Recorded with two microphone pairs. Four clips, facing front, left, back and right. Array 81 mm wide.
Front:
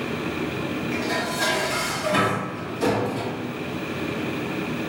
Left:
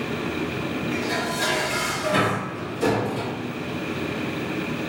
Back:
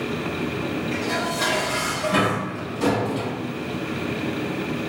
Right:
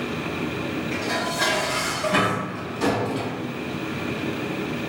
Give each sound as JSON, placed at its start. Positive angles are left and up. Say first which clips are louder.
{"t": 0.9, "sound": "dishes clattering", "louder": "even, even", "azimuth_deg": -115, "distance_m": 1.5}